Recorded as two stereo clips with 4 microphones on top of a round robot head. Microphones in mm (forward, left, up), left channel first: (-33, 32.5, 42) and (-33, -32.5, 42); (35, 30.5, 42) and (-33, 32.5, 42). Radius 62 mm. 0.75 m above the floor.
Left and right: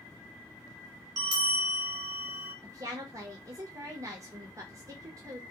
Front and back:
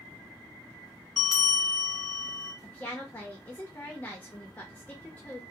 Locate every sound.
1.2 s a bell: 85° right, 0.7 m
2.6 s a woman speaking: 65° right, 0.7 m